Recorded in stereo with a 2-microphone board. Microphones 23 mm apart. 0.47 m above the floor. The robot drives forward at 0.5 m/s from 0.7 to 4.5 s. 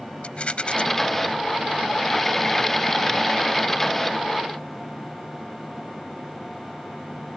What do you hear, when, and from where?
0.2 s a rattle: 60° left (ahead or behind)